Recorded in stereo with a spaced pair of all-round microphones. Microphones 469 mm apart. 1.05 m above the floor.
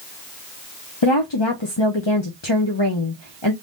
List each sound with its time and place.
1.0 s a woman speaking: 65° left (ahead or behind), 0.7 m